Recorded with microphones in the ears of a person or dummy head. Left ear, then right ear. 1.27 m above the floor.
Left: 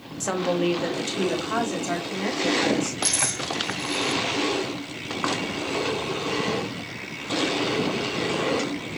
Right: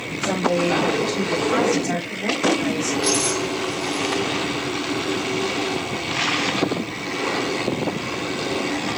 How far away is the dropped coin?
About 3.5 m.